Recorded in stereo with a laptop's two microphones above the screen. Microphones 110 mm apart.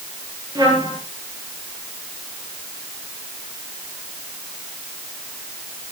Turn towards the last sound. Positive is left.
turn(degrees=-40)  # may be behind; listen again after turning